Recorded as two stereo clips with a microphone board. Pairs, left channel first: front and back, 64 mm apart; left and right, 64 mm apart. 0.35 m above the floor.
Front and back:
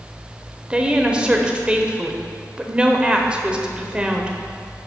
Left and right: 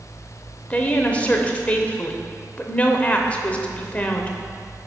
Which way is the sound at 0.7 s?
125° left.